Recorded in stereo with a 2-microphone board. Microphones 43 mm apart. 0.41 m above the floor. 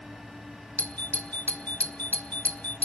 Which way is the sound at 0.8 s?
40° left (ahead or behind).